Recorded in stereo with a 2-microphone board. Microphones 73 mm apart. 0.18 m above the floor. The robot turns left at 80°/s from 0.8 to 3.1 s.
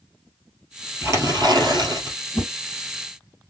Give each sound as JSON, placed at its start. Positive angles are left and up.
{"t": 1.0, "sound": "tearing paper", "azimuth_deg": -30, "distance_m": 1.7}
{"t": 2.3, "sound": "a whoosh", "side_deg": 5, "distance_m": 1.6}